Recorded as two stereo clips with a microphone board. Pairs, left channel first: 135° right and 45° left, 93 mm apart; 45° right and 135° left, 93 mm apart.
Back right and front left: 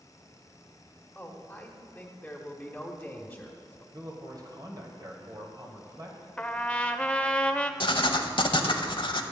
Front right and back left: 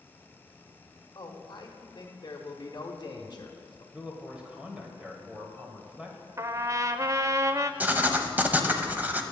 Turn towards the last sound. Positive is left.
turn(degrees=-155)